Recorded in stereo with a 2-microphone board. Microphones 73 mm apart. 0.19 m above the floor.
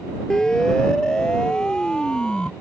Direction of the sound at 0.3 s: 5° left (ahead or behind).